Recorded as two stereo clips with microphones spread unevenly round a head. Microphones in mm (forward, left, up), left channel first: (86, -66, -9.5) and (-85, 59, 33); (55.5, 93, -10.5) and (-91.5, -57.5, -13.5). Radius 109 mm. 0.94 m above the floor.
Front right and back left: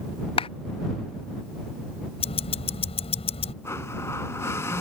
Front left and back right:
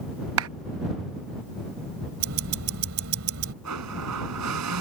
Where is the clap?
100° right.